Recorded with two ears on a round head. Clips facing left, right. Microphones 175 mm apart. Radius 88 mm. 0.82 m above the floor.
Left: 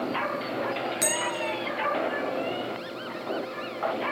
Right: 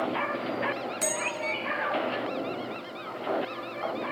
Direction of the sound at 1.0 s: 15° left (ahead or behind).